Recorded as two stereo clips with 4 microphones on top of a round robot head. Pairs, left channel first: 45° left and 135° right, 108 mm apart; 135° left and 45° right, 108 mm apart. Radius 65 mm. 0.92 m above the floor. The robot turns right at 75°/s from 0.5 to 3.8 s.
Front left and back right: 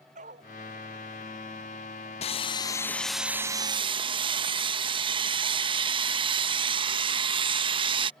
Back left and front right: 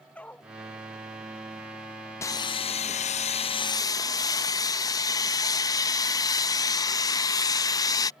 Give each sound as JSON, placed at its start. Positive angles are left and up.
{"t": 0.1, "sound": "a dog barking", "azimuth_deg": -150}
{"t": 2.2, "sound": "sawing", "azimuth_deg": 70}